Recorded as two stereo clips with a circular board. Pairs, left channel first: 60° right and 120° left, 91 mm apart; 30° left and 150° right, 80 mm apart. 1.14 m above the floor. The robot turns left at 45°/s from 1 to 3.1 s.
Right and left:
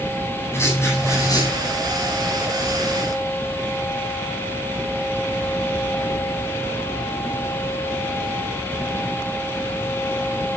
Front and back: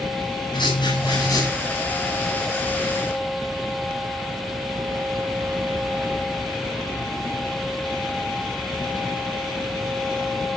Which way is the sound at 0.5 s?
5° left.